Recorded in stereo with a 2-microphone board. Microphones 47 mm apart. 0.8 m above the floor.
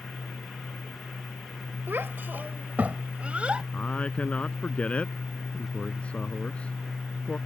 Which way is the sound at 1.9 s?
50° right (ahead or behind).